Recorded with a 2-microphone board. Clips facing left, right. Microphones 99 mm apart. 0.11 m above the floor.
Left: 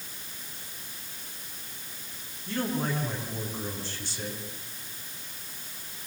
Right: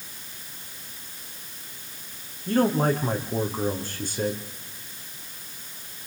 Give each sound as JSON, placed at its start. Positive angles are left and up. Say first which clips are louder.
{"t": 2.5, "sound": "a man speaking", "louder": "right 8 dB", "side_deg": -50, "distance_m": 6.5}